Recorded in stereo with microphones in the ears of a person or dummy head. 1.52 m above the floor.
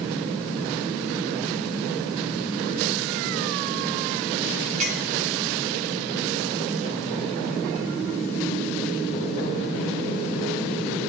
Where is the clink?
50° right (ahead or behind), 5.5 m.